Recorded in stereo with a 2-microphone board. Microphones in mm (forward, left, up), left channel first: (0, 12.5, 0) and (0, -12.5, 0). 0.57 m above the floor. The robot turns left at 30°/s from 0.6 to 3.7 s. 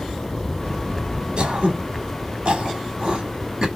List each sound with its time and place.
1.4 s throat clearing: 40° right (ahead or behind), 1.0 m; by 3.7 s 25° right (ahead or behind), 1.0 m